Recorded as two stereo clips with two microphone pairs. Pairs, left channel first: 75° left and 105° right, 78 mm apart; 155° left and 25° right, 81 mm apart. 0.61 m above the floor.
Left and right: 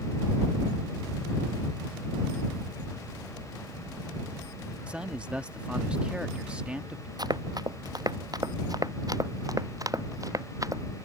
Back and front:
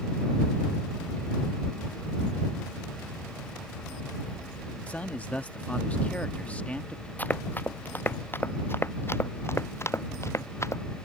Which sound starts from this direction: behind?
A man speaking, at 4.9 s.